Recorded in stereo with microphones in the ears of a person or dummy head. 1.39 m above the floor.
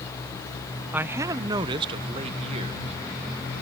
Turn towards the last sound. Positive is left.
turn(degrees=-35)  # may be behind; listen again after turning